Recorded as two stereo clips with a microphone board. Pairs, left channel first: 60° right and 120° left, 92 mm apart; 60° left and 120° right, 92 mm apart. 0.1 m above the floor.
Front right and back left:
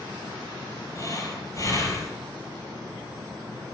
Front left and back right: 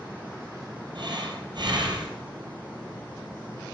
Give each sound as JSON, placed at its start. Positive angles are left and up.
{"t": 0.9, "sound": "breathing", "azimuth_deg": -100, "distance_m": 3.5}